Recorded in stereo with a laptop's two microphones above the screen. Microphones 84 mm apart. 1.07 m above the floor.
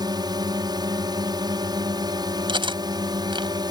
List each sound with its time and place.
0.0 s a drone: 55° right (ahead or behind)
2.5 s cutlery clinking: 70° right (ahead or behind)